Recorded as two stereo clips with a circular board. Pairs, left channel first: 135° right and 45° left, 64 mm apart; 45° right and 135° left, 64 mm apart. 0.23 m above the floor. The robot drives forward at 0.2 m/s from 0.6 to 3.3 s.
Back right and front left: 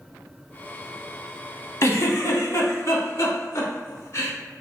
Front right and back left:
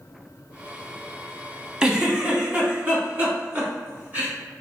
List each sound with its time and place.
1.8 s a giggle: 150° right, 0.6 m; by 4.3 s 165° right, 0.8 m